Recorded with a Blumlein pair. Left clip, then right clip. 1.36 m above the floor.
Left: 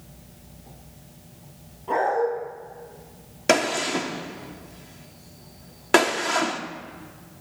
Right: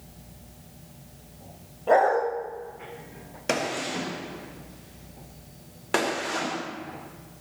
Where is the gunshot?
20° left, 1.2 m.